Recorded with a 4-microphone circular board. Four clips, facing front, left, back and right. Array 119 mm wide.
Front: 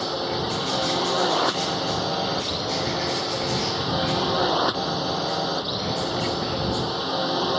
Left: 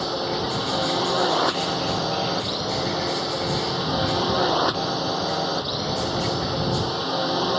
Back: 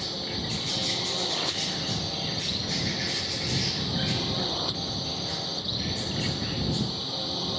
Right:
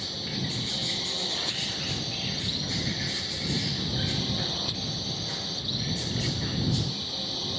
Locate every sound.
0.0 s a drone: 45° left